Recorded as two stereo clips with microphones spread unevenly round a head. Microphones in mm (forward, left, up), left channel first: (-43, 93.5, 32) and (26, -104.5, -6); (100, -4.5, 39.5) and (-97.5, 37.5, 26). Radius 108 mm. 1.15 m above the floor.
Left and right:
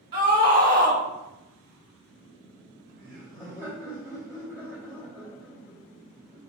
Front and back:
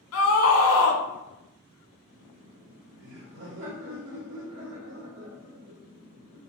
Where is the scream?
5° right, 1.3 m.